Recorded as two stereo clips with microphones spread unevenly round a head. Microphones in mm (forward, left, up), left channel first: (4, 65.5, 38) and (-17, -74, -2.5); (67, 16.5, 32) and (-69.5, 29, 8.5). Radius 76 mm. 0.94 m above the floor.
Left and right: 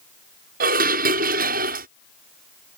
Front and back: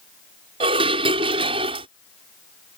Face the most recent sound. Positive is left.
turn(degrees=-125)